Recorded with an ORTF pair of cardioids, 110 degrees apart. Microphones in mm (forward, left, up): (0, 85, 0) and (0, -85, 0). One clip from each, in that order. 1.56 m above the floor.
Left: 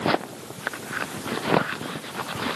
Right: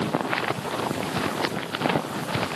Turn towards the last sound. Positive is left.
No sound to turn to.